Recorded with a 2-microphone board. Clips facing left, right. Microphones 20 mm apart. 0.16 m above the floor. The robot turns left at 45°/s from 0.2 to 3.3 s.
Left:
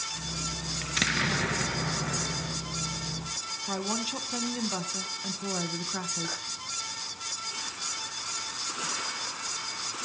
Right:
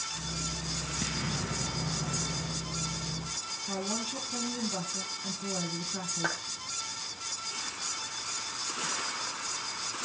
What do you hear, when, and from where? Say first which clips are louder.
0.8 s an explosion: left 10 dB; 100° left, 1.2 m; by 2.6 s 20° left, 1.2 m
3.7 s a woman speaking: left 3 dB; 30° left (ahead or behind), 1.3 m
6.2 s a clap: right 2 dB; 60° right (ahead or behind), 4.5 m